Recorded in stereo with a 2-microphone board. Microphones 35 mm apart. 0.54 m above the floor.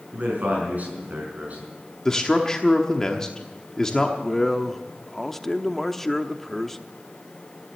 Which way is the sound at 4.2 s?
5° left (ahead or behind).